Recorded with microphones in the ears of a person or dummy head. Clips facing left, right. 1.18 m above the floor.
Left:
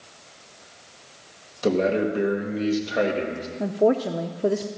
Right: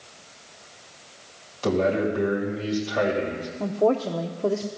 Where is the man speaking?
25° left (ahead or behind), 2 m.